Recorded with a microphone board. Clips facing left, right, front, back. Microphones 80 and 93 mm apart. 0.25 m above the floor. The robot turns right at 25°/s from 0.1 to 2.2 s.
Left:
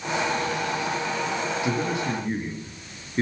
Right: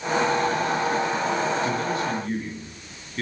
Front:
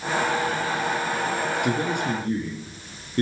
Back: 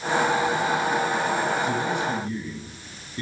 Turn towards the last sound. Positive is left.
turn(degrees=25)